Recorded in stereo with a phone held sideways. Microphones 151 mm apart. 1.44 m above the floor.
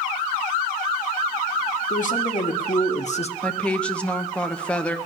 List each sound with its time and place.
1.9 s a man speaking: 60° left (ahead or behind), 1.9 m; by 3.3 s 45° left (ahead or behind), 0.7 m
3.4 s a woman speaking: 5° left (ahead or behind), 1.0 m